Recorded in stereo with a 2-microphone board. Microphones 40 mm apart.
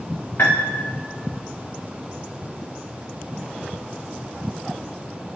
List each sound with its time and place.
0.4 s a piano: 60° left (ahead or behind), 3 m